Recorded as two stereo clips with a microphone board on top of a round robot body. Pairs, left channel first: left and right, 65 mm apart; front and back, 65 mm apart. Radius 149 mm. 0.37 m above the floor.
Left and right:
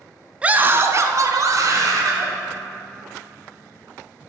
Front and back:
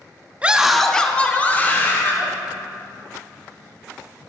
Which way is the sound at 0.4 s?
140° right.